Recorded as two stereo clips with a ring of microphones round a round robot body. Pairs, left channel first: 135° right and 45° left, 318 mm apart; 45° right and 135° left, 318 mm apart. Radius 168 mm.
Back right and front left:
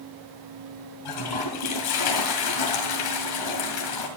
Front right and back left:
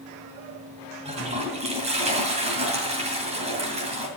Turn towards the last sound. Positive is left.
turn(degrees=-155)